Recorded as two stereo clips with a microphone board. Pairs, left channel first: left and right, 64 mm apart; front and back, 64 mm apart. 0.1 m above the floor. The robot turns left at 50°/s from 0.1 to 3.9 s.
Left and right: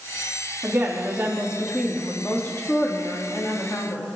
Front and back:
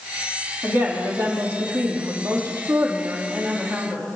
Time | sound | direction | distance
0.6 | a woman speaking | 125° right | 3.5 m